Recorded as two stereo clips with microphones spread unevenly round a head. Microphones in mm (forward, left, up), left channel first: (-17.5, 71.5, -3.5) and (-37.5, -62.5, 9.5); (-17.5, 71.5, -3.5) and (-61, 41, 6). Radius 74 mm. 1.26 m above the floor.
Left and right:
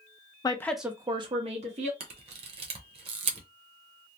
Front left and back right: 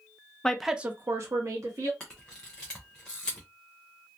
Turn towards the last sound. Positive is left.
turn(degrees=-50)